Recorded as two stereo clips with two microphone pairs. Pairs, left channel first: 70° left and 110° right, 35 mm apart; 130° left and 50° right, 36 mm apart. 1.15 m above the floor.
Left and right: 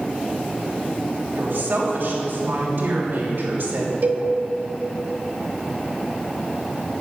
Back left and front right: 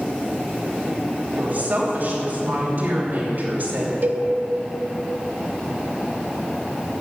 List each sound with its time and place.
1.3 s a woman speaking: 90° right, 3 m
4.0 s a cowbell: 80° right, 1.0 m